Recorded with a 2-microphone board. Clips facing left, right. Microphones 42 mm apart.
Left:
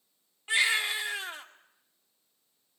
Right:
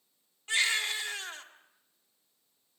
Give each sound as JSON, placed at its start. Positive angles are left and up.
{"t": 0.5, "sound": "a baby crying", "side_deg": 15, "distance_m": 1.9}